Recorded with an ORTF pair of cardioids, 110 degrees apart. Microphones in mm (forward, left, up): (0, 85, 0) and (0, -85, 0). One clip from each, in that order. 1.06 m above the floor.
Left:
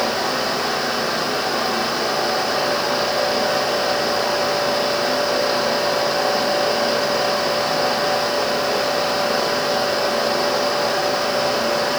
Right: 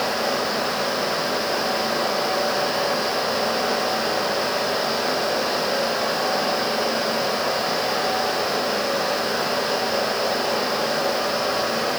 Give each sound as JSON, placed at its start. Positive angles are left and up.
{"t": 0.0, "sound": "a fan", "azimuth_deg": 35, "distance_m": 1.8}